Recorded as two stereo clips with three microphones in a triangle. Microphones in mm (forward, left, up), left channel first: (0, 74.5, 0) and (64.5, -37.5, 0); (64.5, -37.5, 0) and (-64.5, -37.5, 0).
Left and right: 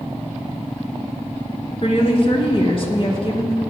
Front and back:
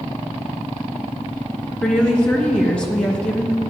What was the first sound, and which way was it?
A woman speaking, 80° left.